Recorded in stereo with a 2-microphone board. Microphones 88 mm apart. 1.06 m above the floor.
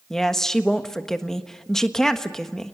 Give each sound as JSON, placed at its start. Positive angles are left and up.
{"t": 0.1, "sound": "a woman speaking", "side_deg": 5, "distance_m": 1.4}